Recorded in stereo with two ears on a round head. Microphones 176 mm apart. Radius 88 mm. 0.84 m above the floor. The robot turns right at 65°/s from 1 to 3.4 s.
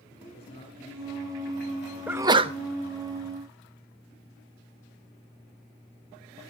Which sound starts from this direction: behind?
A sneeze, at 2.1 s.